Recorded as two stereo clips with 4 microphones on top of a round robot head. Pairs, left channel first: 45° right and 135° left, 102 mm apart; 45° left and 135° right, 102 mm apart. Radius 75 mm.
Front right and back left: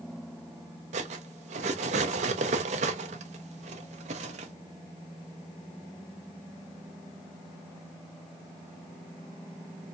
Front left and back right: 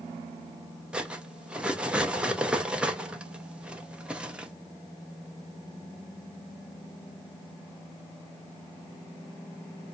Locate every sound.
0.9 s cutlery clinking: 145° left, 0.8 m